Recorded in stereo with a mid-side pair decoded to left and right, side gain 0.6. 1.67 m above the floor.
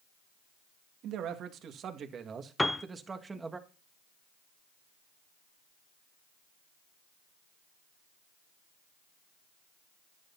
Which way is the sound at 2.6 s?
10° left.